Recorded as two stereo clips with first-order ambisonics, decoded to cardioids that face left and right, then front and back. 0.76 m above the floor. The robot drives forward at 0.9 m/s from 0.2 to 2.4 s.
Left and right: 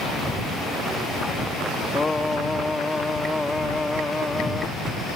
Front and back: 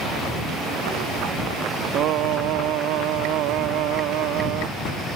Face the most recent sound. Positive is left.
turn(degrees=175)